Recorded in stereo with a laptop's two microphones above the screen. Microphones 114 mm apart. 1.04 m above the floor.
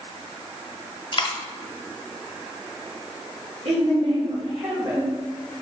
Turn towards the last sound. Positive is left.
turn(degrees=-65)  # may be behind; listen again after turning